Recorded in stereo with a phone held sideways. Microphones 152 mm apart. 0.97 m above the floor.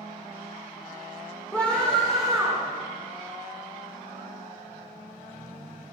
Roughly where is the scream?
Centre.